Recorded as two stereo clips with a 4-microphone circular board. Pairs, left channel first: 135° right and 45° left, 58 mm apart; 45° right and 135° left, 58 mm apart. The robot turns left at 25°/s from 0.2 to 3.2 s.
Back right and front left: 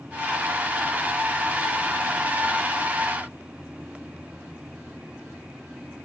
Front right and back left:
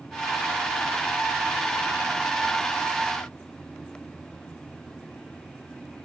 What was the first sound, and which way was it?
Only background noise.